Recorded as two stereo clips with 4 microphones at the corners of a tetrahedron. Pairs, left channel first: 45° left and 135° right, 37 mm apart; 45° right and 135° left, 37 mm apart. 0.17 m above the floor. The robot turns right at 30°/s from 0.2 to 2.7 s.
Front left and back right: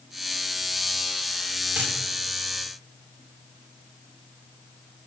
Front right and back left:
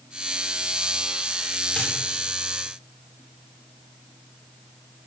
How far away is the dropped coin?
About 10 m.